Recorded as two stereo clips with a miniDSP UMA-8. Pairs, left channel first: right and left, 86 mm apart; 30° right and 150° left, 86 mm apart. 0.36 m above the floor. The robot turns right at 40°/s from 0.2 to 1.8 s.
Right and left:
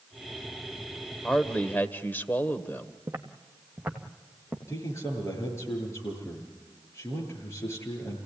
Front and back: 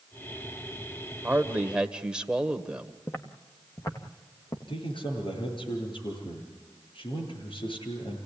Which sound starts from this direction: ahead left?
Footsteps, at 3.1 s.